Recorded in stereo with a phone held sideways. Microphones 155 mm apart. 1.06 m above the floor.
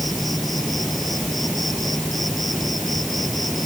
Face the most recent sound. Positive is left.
turn(degrees=0)  # may be behind; listen again after turning